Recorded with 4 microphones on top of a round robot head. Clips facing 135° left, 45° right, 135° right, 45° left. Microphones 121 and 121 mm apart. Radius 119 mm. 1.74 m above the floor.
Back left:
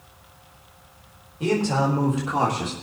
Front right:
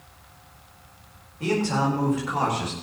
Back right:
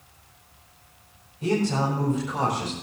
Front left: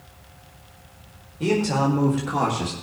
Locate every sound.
1.4 s a man speaking: 65° left, 3.5 m; by 2.7 s 75° left, 3 m